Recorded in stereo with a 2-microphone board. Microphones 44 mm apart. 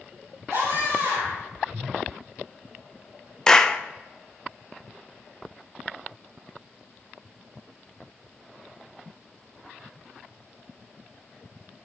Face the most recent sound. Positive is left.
turn(degrees=15)  # may be behind; listen again after turning